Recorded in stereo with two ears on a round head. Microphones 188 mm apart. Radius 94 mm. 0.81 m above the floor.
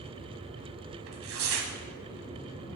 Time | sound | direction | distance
1.1 | tearing paper | 65° right (ahead or behind) | 1.9 m